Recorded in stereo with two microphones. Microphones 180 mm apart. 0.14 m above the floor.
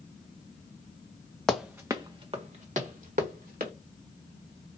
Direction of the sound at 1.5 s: 5° left (ahead or behind).